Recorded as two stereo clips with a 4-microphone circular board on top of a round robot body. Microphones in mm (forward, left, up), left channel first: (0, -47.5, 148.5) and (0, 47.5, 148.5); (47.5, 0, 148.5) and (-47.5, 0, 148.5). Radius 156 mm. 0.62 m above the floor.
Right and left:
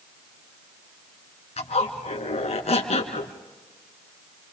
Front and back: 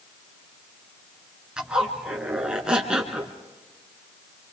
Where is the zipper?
100° right, 2.5 m.